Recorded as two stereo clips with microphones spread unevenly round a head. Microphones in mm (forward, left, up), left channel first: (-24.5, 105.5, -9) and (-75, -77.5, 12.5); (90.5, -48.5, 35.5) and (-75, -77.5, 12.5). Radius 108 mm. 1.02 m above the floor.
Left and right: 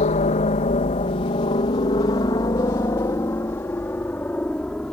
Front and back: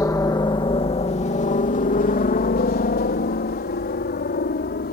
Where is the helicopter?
80° left; by 4.9 s 10° right.